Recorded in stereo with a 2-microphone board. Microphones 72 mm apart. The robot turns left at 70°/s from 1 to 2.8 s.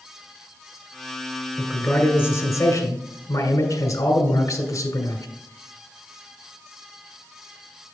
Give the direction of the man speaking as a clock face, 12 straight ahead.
6 o'clock.